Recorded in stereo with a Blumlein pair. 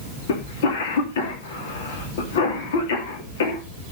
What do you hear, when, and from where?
0.3 s a cough: 55° left, 3.5 m